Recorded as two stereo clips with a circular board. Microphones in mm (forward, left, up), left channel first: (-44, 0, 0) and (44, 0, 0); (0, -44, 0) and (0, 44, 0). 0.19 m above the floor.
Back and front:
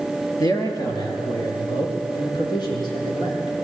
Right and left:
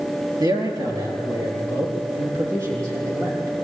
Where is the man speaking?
130° left, 3.5 m; by 3.5 s 145° left, 7.5 m.